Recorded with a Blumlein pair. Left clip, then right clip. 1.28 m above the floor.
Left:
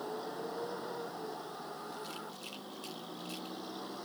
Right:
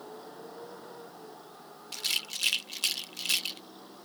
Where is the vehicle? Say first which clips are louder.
Left 5 dB; 15° left; by 4.0 s 20° left.